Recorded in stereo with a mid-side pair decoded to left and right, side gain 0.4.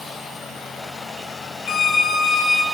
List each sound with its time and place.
1.7 s a violin: 65° left, 6.5 m